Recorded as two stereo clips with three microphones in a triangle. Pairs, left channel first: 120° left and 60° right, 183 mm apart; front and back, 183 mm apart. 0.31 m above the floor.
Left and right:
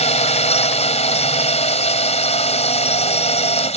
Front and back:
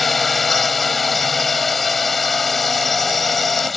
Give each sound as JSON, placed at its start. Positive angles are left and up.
{"t": 0.0, "sound": "a drone", "azimuth_deg": 90}